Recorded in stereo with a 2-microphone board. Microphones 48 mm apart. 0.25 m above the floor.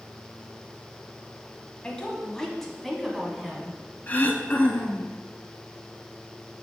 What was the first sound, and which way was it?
A woman speaking, 20° left (ahead or behind).